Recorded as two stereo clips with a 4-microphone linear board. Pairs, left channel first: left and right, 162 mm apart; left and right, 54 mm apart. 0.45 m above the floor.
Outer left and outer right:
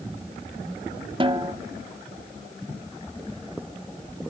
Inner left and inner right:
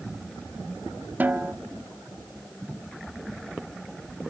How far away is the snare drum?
About 0.8 m.